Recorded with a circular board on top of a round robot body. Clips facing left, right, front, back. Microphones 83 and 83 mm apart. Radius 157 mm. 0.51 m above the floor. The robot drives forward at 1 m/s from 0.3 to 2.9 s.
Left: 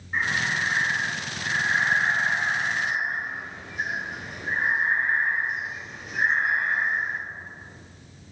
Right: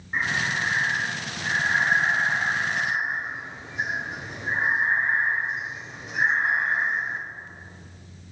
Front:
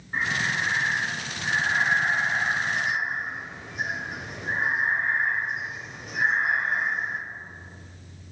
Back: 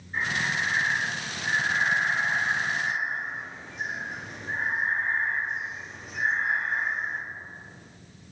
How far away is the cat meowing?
I don't hear a cat meowing.